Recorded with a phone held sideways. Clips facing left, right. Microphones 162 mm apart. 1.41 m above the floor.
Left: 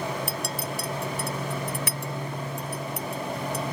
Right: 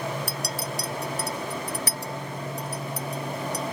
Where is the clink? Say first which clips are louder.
Left 1 dB; 40° right (ahead or behind).